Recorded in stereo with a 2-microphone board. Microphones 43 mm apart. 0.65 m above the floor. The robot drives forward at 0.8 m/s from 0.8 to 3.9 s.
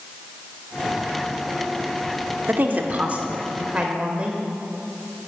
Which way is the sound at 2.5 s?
45° right (ahead or behind).